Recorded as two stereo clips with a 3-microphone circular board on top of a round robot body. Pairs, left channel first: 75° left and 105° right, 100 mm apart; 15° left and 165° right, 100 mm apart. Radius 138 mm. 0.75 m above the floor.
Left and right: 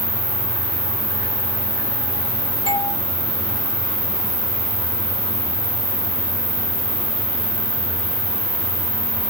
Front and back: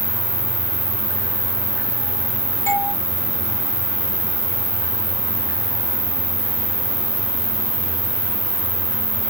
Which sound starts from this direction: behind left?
An insect, at 0.0 s.